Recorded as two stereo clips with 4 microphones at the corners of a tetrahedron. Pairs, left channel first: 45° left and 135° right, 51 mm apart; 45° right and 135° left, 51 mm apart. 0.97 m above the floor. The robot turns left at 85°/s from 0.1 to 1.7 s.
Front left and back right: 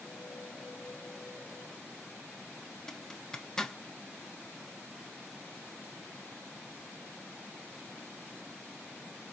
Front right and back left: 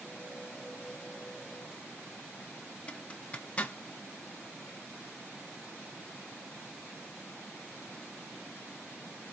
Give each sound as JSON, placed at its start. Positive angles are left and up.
{"t": 2.9, "sound": "a zipper", "azimuth_deg": -20, "distance_m": 0.6}